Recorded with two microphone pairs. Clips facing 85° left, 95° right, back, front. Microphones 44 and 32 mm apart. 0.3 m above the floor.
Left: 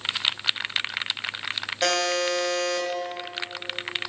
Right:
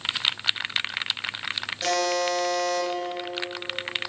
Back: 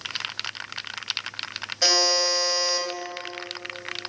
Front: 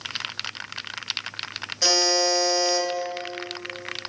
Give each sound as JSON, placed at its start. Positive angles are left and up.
{"t": 1.8, "sound": "a buzzer", "azimuth_deg": 105, "distance_m": 3.0}